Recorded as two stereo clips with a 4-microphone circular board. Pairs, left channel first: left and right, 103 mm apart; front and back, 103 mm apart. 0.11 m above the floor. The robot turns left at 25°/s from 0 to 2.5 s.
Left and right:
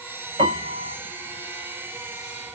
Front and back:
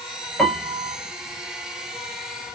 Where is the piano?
80° right, 0.9 m; by 1.0 s 95° right, 0.9 m.